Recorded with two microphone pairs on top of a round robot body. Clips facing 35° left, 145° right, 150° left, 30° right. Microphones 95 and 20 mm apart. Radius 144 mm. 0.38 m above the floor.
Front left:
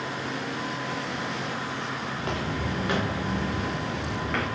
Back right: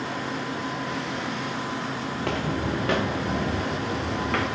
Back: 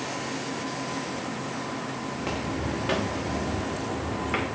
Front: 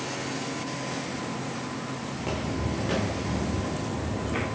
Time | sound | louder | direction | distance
2.1 | footsteps | back right 4 dB, even | 125° right | 2.5 m